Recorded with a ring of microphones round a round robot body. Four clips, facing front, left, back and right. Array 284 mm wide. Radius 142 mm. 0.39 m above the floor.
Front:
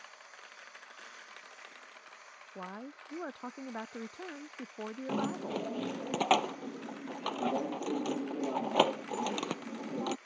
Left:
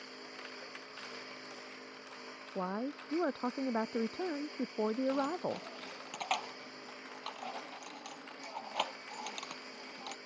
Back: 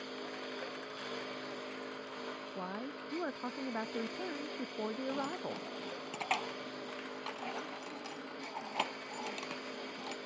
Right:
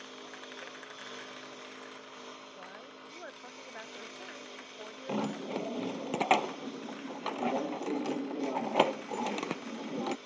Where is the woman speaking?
95° left.